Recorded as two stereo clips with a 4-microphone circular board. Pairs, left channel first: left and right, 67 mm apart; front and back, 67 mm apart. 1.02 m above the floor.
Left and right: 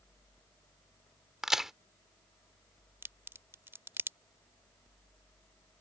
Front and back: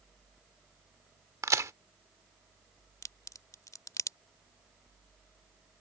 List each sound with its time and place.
1.4 s a crack: 170° right
3.0 s a crack: 35° right